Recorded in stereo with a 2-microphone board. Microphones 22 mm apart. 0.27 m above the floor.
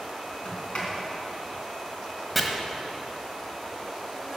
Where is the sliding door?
65° left (ahead or behind), 3 m.